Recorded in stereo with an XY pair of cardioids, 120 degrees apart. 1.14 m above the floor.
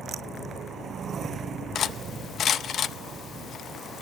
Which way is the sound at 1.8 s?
45° left.